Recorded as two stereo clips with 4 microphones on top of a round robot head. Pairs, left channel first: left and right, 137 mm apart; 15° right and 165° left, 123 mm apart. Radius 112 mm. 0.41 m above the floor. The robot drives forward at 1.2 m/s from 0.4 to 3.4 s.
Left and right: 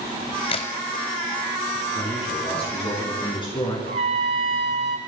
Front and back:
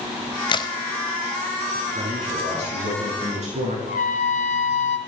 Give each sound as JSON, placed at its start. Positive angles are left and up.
{"t": 0.5, "sound": "a crack", "azimuth_deg": 35, "distance_m": 1.3}
{"t": 1.9, "sound": "a man speaking", "azimuth_deg": 130, "distance_m": 4.5}
{"t": 3.9, "sound": "a trumpet", "azimuth_deg": -40, "distance_m": 1.4}